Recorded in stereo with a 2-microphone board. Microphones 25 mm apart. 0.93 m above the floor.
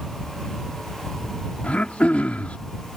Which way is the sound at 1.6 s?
70° left (ahead or behind).